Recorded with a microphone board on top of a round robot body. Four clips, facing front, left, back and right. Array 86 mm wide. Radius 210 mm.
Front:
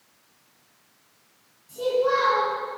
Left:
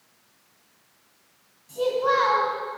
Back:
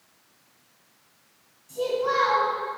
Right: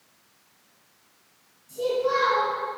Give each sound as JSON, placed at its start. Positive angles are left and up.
{"t": 1.7, "sound": "a child speaking", "azimuth_deg": 100, "distance_m": 2.0}